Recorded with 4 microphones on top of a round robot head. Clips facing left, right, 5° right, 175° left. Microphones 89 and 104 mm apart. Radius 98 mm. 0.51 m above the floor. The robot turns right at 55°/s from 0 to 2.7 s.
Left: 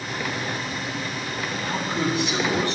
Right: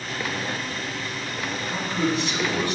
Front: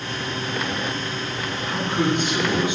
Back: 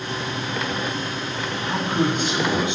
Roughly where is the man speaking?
Behind left.